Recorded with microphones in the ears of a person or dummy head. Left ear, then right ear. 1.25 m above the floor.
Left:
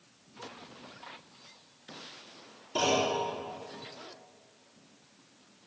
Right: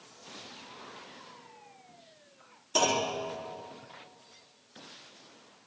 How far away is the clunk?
About 3.5 m.